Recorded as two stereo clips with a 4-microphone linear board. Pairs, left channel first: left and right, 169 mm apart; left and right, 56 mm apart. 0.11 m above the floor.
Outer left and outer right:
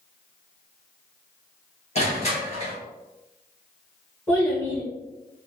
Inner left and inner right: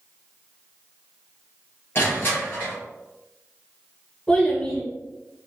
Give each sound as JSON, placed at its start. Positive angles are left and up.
{"t": 1.9, "sound": "crushing", "side_deg": 40, "distance_m": 1.7}
{"t": 4.3, "sound": "a child speaking", "side_deg": 10, "distance_m": 1.7}